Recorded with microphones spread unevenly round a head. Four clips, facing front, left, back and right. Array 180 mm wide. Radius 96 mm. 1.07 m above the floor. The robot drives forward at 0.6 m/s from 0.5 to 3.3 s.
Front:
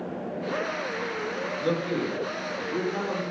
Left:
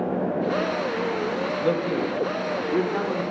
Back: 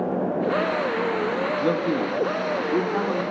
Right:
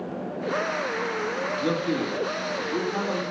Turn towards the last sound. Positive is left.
turn(degrees=-165)